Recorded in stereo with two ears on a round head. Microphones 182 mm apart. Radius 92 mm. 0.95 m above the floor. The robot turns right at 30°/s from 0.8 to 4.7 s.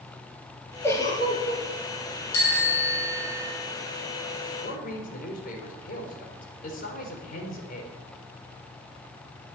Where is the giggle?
10° left (ahead or behind), 3.5 m; by 1.6 s 35° left (ahead or behind), 3.5 m.